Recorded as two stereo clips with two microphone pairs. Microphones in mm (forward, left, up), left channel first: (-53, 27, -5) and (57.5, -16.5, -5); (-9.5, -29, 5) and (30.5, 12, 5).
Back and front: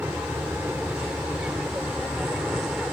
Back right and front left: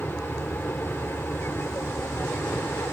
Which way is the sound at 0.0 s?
95° right.